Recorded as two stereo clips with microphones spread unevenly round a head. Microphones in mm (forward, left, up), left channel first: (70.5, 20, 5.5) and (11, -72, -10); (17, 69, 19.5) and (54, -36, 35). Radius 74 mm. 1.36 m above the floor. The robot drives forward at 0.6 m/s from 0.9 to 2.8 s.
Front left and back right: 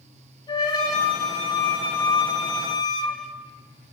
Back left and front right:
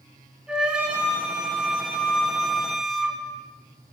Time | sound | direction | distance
0.5 | a flute | 10° left | 5.5 m